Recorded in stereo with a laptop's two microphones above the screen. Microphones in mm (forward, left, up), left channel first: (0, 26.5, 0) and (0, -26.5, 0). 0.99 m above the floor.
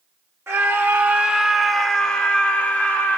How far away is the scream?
About 0.7 m.